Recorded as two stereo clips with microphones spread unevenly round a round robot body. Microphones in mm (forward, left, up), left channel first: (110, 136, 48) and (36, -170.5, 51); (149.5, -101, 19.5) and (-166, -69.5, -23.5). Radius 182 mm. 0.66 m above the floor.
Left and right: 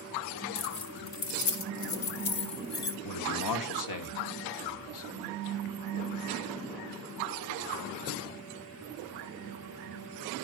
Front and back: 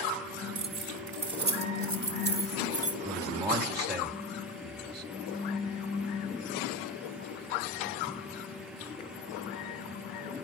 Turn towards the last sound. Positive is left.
turn(degrees=90)